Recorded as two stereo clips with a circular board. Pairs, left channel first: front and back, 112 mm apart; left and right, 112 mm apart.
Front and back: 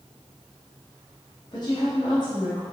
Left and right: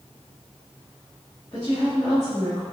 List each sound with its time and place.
1.5 s a woman speaking: 35° left, 1.0 m